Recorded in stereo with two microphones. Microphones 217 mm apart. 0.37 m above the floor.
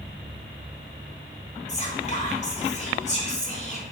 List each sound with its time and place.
1.7 s whispering: 35° left (ahead or behind), 1.1 m